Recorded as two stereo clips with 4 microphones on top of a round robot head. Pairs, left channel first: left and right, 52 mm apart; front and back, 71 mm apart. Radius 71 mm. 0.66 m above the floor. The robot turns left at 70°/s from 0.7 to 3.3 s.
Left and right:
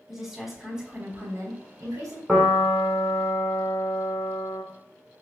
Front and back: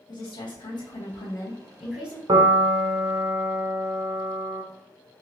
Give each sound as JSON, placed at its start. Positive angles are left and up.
{"t": 0.1, "sound": "a woman speaking", "azimuth_deg": -10, "distance_m": 3.5}
{"t": 2.3, "sound": "a piano", "azimuth_deg": -170, "distance_m": 1.7}